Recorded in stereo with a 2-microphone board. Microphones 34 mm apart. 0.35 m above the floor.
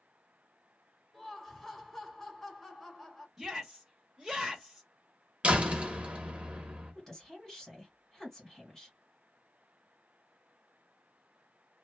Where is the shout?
10° right (ahead or behind), 0.8 m.